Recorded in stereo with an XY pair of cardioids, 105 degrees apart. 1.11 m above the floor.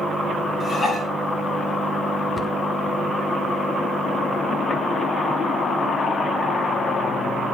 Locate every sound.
0.6 s dishes clattering: 35° left, 3.5 m
2.4 s a cupboard door: 30° left, 0.8 m